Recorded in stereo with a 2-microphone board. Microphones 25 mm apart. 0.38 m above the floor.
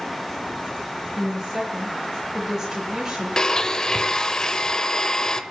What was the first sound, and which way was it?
A woman speaking, 20° right (ahead or behind).